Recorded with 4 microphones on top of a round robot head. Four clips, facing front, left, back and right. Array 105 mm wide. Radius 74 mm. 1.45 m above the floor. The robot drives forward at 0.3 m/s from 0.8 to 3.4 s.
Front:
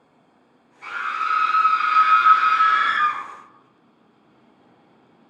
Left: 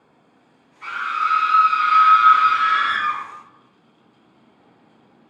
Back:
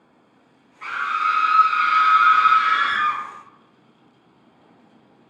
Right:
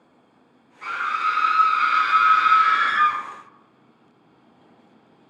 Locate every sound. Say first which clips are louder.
0.8 s a scream: left 1 dB, back 3 dB; 155° right, 1.2 m; by 3.2 s 165° right, 1.9 m